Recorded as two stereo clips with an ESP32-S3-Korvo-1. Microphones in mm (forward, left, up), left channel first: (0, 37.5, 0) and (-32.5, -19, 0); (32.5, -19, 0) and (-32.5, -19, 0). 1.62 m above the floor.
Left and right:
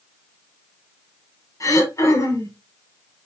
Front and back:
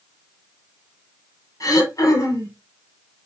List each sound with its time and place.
1.6 s throat clearing: 30° left, 4.5 m